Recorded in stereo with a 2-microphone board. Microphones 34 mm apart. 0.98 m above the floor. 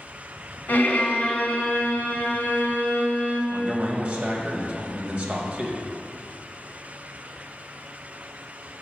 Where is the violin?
60° left (ahead or behind), 0.9 m.